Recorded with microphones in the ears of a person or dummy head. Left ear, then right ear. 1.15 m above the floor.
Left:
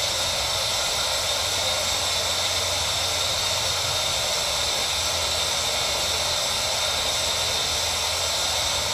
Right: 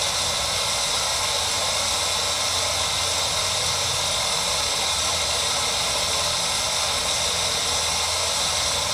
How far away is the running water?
About 0.8 m.